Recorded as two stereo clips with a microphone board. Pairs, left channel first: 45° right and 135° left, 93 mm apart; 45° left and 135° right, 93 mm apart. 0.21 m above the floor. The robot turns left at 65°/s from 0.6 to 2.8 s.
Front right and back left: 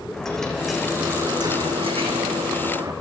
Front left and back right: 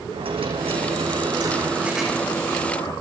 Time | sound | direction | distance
0.1 | a dropped coin | 130° right | 5 m